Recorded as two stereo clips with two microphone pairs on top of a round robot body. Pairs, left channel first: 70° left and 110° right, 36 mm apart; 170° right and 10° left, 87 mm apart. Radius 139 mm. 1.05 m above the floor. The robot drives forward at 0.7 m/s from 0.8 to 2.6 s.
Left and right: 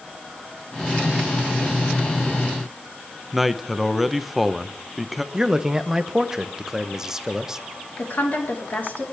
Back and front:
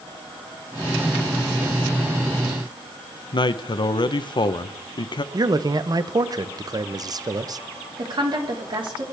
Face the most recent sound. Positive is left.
turn(degrees=35)